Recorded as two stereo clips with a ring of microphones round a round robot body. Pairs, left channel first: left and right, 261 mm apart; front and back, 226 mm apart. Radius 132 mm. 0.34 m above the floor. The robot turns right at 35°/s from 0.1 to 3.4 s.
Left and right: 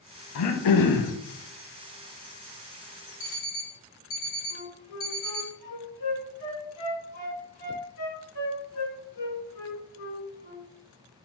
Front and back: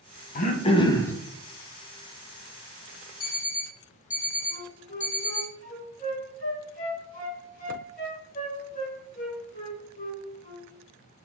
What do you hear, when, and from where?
0.3 s throat clearing: 55° left, 0.7 m; by 1.1 s 80° left, 0.7 m
3.2 s an alarm clock: 50° left, 1.4 m; by 5.5 s 55° left, 1.4 m
4.5 s a flute: 55° left, 2 m